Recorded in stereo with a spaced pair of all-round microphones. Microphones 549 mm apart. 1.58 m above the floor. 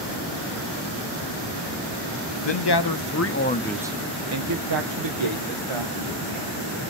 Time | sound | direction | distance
2.4 | a man speaking | 55° left (ahead or behind) | 0.8 m